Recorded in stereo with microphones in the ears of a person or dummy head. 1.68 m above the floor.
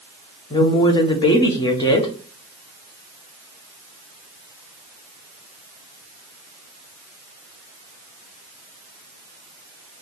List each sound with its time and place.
0.5 s a woman speaking: 30° left (ahead or behind), 0.9 m